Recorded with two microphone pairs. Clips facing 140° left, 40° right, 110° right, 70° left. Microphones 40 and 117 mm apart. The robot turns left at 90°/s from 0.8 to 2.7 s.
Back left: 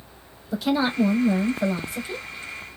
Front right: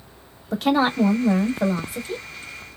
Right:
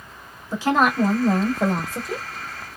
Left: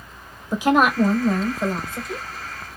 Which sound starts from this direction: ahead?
A woman speaking, at 0.5 s.